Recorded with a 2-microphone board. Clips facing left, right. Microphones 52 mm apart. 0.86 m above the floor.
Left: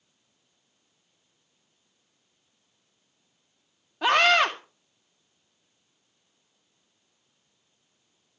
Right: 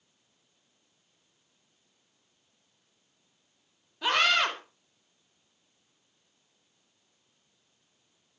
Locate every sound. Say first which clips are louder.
4.0 s a scream: left 5 dB; 65° left (ahead or behind), 3 m